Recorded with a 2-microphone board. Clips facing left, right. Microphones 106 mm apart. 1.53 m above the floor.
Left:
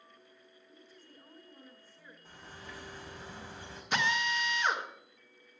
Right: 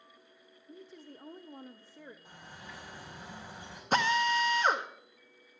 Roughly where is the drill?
Right.